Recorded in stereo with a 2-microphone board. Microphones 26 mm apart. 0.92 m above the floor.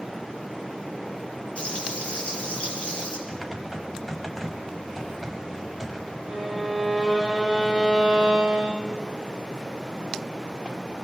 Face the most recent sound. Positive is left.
turn(degrees=0)  # may be behind; listen again after turning